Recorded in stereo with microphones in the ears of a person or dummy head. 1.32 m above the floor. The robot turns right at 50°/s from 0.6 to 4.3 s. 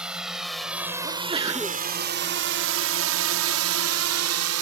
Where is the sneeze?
35° right; by 1.8 s 5° left.